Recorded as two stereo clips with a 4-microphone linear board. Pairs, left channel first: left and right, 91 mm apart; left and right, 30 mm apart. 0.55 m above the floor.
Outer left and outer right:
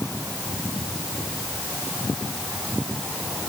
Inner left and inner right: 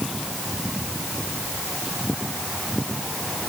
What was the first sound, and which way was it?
Only background noise.